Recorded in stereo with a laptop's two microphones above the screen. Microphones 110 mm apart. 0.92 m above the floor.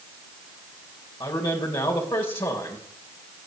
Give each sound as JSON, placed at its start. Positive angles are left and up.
{"t": 1.2, "sound": "a man speaking", "side_deg": 50, "distance_m": 3.0}